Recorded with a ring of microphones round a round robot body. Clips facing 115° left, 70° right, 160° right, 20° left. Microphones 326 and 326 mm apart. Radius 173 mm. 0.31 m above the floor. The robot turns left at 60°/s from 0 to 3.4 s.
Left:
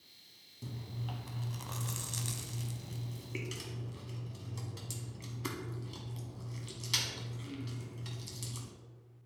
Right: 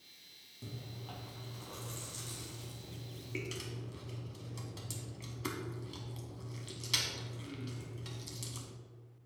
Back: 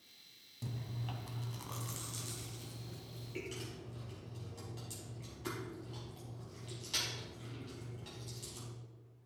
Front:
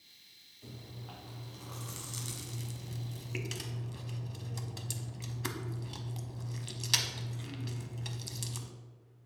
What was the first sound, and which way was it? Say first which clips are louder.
Chewing: left 3 dB, back 3 dB; 170° right.